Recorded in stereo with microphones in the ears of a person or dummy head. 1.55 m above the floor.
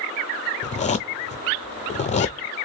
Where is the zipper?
25° left (ahead or behind), 0.7 m.